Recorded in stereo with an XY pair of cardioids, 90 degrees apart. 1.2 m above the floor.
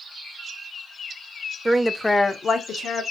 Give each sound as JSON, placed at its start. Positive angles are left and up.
{"t": 1.6, "sound": "a woman speaking", "azimuth_deg": -20, "distance_m": 0.7}